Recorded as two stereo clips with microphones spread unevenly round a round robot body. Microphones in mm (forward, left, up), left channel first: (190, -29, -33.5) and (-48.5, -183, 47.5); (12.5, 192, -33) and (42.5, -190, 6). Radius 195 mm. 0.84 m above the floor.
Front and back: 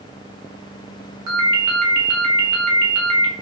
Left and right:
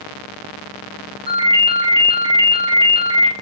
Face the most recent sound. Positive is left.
turn(degrees=-160)